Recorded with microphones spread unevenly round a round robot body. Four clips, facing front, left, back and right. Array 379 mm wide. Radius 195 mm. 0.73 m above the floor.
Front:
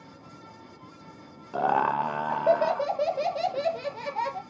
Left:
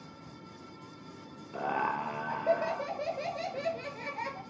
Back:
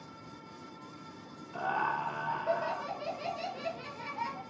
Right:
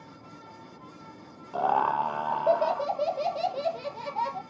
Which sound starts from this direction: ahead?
Laughter, at 1.5 s.